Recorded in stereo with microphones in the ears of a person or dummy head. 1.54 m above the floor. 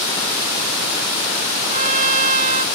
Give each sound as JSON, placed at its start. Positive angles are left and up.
{"t": 1.7, "sound": "a trumpet", "side_deg": -40}